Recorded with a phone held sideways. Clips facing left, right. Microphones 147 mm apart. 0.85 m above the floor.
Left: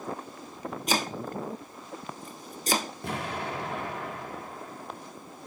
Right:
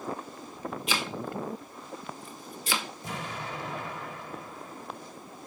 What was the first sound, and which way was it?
Chopping, 45° left (ahead or behind).